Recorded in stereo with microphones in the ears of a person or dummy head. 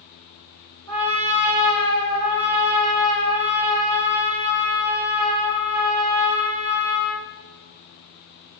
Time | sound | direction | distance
0.9 | a trumpet | 75° right (ahead or behind) | 3 m